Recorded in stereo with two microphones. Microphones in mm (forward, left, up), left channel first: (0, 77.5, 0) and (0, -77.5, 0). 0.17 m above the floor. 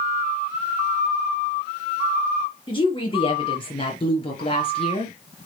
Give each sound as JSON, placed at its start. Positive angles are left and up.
{"t": 2.7, "sound": "a woman speaking", "side_deg": 30, "distance_m": 4.5}